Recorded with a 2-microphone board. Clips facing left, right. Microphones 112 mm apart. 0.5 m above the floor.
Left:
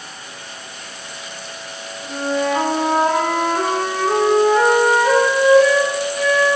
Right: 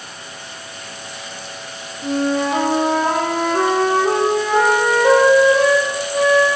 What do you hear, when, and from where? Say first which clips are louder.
2.0 s a flute: right 2 dB; 65° right (ahead or behind), 9 m